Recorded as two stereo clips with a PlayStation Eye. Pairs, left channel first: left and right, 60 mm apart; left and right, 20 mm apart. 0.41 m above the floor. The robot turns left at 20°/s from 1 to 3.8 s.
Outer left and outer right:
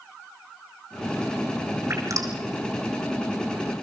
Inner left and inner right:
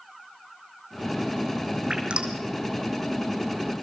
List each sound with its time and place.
1.9 s dripping: 55° right (ahead or behind), 5 m; by 2.4 s 60° right (ahead or behind), 5 m